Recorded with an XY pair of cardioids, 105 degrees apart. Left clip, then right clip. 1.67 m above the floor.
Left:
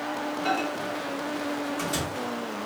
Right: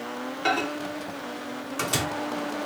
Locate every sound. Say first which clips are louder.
0.5 s a microwave: right 3 dB; 60° right, 0.8 m